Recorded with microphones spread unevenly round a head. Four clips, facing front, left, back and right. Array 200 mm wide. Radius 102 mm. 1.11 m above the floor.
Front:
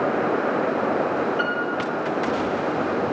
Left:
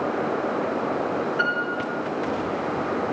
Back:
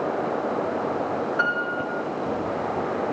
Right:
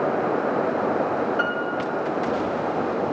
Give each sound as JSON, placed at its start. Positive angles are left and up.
{"t": 1.4, "sound": "a piano", "azimuth_deg": -150, "distance_m": 5.5}